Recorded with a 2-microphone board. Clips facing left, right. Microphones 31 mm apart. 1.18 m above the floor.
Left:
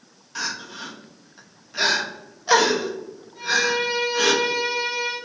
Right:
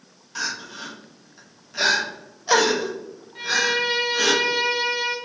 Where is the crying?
5° left (ahead or behind), 1.0 m.